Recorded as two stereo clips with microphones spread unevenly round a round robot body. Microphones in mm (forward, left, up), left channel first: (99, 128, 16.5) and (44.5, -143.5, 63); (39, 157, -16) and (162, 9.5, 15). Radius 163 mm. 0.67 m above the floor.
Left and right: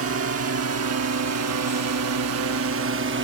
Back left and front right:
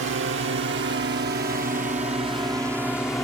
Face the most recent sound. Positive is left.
turn(degrees=-150)